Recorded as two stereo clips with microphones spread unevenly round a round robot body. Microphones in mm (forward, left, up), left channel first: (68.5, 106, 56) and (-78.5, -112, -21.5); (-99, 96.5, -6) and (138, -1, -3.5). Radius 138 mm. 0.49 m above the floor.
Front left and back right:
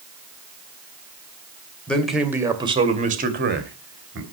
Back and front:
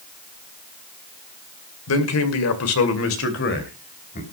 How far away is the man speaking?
About 2 m.